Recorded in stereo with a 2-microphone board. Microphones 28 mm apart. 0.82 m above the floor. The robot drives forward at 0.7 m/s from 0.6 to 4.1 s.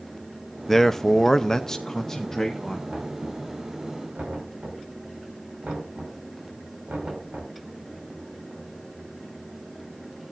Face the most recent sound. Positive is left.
turn(degrees=-60)  # may be behind; listen again after turning